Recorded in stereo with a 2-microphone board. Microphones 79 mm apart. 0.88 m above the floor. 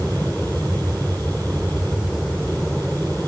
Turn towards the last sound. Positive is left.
turn(degrees=5)  # may be behind; listen again after turning